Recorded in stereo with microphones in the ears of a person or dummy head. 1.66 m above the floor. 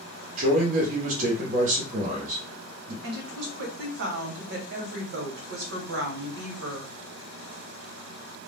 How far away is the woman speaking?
About 1.0 m.